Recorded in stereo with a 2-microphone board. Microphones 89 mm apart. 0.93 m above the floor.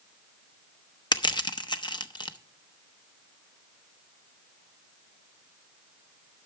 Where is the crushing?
65° left (ahead or behind), 0.7 m.